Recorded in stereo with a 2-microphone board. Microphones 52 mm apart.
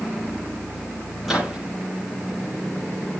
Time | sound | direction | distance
1.2 | a microwave | 5° right (ahead or behind) | 8.5 m